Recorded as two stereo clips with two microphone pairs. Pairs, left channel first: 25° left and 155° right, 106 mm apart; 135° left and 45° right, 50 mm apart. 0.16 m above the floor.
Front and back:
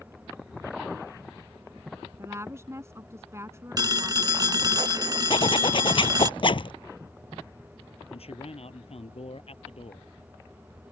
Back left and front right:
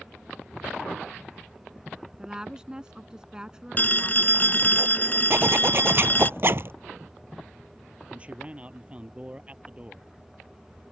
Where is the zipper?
10° right.